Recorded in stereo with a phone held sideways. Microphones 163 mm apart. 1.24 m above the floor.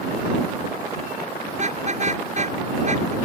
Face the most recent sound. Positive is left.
turn(degrees=-45)  # may be behind; listen again after turning